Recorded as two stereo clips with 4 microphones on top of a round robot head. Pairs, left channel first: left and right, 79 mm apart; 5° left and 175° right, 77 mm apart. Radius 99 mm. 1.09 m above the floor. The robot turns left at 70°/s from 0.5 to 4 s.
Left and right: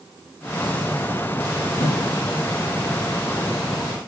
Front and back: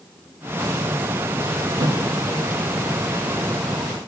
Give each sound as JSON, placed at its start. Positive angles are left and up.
{"t": 1.8, "sound": "a thud", "azimuth_deg": 155, "distance_m": 3.5}